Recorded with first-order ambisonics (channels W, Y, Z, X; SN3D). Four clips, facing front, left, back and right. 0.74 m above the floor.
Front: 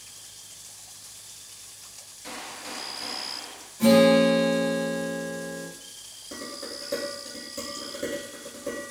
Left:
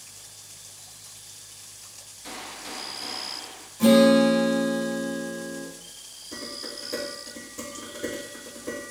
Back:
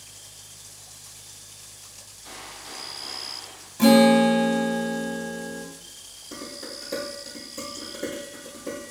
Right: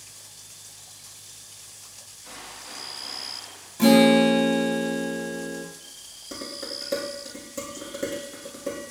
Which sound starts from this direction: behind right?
A guitar, at 3.8 s.